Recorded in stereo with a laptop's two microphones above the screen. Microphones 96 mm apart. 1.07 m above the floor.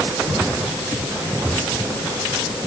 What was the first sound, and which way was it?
Only background noise.